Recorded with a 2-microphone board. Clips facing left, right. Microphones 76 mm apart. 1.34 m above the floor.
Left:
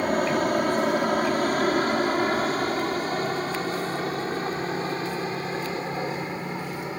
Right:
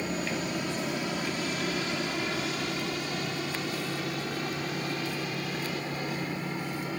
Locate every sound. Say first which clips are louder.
0.0 s an aircraft: left 9 dB; 55° left (ahead or behind); by 7.0 s 30° left (ahead or behind)